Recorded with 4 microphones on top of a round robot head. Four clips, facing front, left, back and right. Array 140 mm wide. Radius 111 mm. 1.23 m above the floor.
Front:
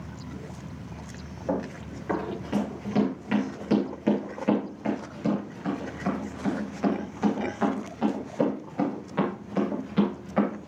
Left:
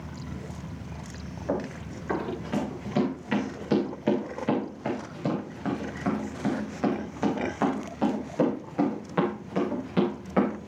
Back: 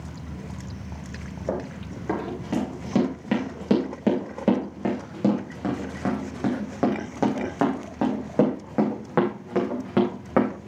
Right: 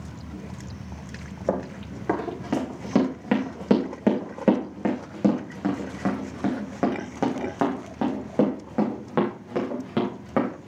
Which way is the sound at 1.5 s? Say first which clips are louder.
Right 3 dB, even; 90° right.